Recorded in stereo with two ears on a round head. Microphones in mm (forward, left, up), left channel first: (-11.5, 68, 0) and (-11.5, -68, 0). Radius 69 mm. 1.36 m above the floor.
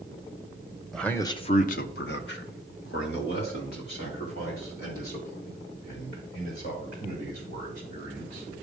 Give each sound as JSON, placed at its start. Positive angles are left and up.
{"t": 0.9, "sound": "a man speaking", "side_deg": 0, "distance_m": 0.8}